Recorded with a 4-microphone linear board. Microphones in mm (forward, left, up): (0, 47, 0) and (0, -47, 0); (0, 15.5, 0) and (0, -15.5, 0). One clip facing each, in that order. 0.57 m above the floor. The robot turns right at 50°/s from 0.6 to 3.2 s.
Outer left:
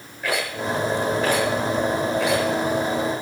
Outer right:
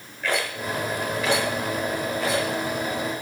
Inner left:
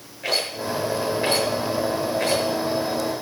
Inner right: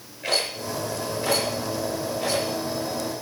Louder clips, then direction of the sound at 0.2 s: Outer left 2 dB, inner left 1 dB; 10° left (ahead or behind).